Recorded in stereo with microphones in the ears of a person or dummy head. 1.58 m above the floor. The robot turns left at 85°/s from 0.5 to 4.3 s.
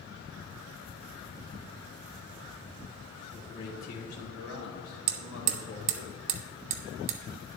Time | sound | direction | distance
3.3 | a man speaking | 175° left | 1.3 m
5.1 | hammering | 40° right (ahead or behind) | 0.7 m